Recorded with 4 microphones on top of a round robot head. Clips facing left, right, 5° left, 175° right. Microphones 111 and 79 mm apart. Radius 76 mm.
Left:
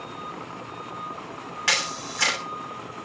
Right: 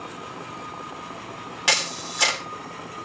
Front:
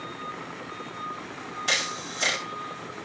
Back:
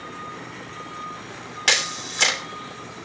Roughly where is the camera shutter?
Behind.